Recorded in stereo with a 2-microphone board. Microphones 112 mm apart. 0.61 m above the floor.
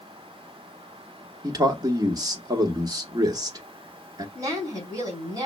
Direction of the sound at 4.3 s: 35° right (ahead or behind).